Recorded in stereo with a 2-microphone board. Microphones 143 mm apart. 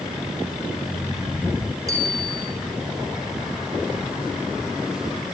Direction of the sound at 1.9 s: 25° right (ahead or behind).